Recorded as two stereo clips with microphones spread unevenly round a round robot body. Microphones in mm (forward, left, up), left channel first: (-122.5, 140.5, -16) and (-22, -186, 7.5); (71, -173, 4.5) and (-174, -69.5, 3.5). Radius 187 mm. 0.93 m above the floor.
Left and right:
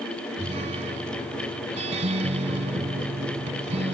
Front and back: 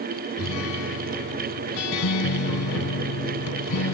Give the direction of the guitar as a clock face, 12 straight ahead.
12 o'clock.